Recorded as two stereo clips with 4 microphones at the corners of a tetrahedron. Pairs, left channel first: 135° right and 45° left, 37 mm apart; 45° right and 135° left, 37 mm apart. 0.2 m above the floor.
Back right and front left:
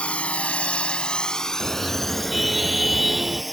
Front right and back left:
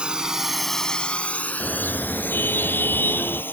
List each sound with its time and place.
0.0 s a drone: straight behind; by 3.5 s 45° right
1.6 s a car horn: 40° right